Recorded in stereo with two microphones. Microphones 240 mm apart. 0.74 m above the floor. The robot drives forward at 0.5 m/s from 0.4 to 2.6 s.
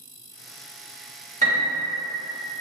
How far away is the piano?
About 0.9 m.